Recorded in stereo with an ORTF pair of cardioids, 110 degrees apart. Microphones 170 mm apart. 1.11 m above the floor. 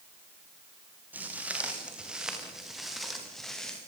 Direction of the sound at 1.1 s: 10° right.